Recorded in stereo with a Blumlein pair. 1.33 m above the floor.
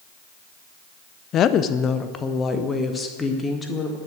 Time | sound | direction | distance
1.3 | a woman speaking | 30° left | 0.6 m